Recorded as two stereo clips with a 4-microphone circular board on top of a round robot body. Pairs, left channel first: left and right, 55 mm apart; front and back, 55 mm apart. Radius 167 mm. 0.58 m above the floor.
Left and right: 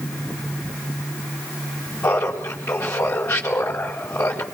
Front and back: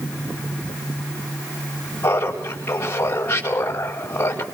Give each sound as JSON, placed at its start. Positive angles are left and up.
{"t": 2.0, "sound": "laughter", "azimuth_deg": 55, "distance_m": 4.5}